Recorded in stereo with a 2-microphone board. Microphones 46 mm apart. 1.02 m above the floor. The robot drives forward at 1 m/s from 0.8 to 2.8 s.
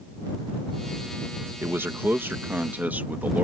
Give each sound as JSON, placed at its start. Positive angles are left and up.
{"t": 1.6, "sound": "a man speaking", "side_deg": -55}